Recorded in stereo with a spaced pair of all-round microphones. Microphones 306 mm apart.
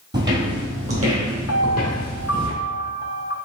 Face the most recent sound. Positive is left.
turn(degrees=50)  # may be behind; listen again after turning